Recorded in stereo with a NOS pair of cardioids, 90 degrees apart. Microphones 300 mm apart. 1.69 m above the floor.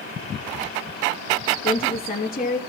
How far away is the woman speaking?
About 3 m.